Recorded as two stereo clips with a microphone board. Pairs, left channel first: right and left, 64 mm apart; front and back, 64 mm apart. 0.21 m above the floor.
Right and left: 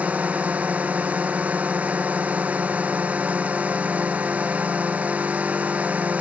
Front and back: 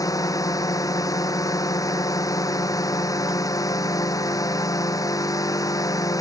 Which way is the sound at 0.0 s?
25° left.